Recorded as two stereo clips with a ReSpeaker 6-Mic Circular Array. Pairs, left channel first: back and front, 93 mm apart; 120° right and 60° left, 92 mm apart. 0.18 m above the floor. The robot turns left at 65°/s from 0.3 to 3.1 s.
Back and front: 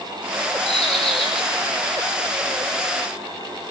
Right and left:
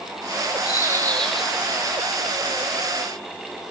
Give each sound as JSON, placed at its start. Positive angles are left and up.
{"t": 0.7, "sound": "a bird", "azimuth_deg": -165, "distance_m": 3.5}